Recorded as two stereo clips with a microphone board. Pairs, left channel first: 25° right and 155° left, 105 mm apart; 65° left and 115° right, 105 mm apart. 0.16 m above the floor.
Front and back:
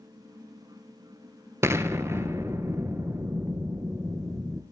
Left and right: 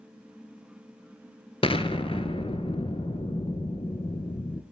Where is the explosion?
95° left, 0.6 m.